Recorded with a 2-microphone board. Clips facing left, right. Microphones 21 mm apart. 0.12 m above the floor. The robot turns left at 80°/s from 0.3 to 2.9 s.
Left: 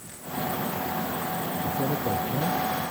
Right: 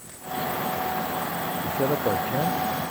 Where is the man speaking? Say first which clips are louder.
Right 4 dB; 60° right; by 2.6 s 135° right.